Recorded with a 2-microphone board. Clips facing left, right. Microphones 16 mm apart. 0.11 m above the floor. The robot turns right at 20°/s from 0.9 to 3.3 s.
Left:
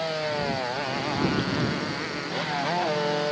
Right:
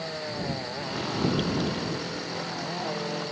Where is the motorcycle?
40° left (ahead or behind); by 3.3 s 75° left (ahead or behind).